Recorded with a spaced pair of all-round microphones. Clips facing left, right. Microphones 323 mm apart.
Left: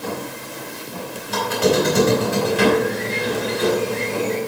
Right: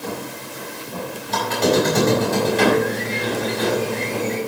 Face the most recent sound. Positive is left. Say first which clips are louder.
# left 1 dB
turn(degrees=10)  # may be behind; listen again after turning